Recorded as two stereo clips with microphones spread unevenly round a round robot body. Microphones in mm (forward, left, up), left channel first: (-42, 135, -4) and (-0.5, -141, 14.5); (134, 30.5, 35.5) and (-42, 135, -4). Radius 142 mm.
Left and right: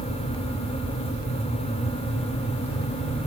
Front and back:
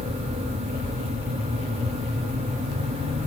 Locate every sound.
Only background noise.